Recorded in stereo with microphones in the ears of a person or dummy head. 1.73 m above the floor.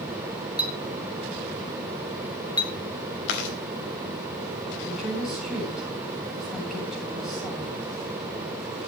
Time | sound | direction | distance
0.6 | a clink | 20° left (ahead or behind) | 2 m
3.3 | chewing | 60° left (ahead or behind) | 4 m
4.8 | a woman speaking | 5° right (ahead or behind) | 9.5 m